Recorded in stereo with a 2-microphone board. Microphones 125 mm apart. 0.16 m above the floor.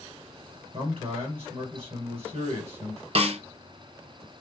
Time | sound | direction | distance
0.7 | a man speaking | 50° right (ahead or behind) | 2.5 m
3.1 | a snare drum | 55° right (ahead or behind) | 0.8 m